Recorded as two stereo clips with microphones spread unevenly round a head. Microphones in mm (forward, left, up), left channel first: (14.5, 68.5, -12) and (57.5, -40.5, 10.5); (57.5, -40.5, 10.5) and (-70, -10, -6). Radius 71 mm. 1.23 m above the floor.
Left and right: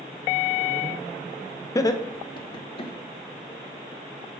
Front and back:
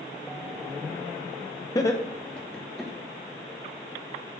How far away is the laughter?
About 0.8 m.